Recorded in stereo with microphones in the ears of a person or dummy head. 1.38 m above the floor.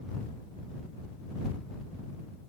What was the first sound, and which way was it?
Only background noise.